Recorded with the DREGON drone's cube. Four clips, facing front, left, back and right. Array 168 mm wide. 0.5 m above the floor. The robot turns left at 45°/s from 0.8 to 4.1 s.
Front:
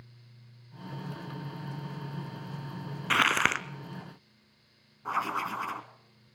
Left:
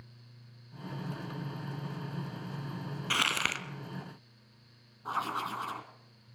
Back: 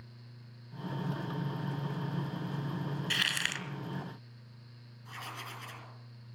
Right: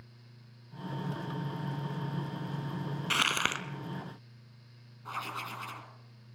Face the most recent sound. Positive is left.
turn(degrees=25)